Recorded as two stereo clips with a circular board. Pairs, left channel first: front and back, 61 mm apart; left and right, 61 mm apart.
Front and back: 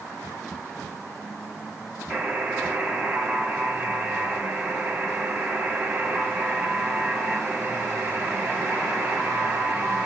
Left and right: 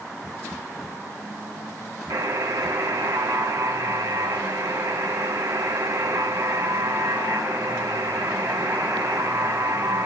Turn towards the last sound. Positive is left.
turn(degrees=-105)